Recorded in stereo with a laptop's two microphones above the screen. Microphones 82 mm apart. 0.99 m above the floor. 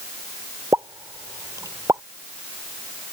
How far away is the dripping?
I don't hear dripping.